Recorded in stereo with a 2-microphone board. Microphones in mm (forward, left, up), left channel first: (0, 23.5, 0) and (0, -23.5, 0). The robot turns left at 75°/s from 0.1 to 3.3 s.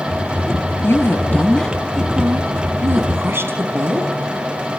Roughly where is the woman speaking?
Left.